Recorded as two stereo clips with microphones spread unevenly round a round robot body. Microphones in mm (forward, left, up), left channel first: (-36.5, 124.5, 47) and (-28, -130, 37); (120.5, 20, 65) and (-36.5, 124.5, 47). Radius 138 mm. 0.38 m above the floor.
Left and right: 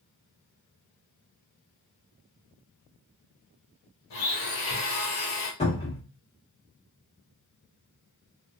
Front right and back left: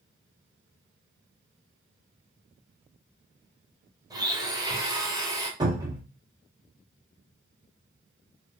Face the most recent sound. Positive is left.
turn(degrees=125)